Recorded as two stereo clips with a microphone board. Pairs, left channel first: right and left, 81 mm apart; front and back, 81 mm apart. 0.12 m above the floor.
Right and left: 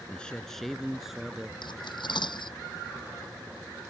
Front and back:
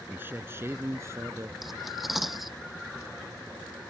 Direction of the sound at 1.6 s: 90° right.